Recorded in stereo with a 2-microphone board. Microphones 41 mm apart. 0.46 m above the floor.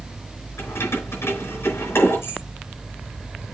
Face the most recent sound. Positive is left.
turn(degrees=80)